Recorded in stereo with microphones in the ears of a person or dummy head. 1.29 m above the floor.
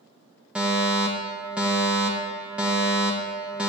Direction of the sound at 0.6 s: 5° right (ahead or behind).